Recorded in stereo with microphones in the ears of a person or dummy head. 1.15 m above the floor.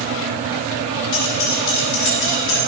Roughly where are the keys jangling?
Left.